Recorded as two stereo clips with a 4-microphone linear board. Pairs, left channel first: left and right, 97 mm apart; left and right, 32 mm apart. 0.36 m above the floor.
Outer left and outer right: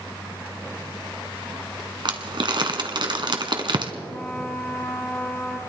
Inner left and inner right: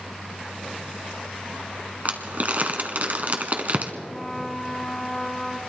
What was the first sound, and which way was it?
Crumpling, 55° right (ahead or behind).